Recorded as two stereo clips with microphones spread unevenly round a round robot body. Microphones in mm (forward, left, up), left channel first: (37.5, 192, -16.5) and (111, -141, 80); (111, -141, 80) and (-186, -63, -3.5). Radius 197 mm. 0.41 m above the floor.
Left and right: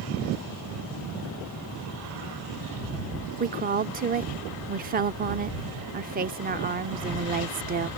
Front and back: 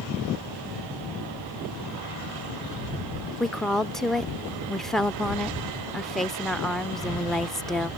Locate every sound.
3.4 s a woman speaking: 145° right